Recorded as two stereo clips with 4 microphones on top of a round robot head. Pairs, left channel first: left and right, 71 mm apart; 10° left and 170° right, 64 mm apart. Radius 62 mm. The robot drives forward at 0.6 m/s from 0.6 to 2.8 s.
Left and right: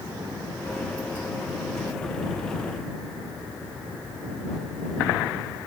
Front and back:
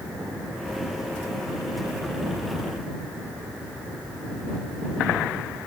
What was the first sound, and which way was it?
Only background noise.